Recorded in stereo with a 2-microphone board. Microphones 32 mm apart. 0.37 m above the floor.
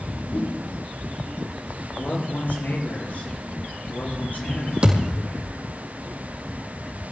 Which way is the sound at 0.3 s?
50° left (ahead or behind).